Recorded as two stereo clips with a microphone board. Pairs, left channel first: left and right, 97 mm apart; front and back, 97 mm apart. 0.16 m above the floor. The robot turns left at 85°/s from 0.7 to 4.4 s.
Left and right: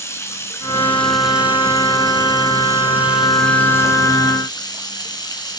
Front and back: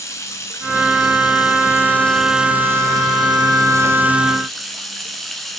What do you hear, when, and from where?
0.0 s running water: 40° left, 1.9 m; by 5.6 s 85° left, 1.9 m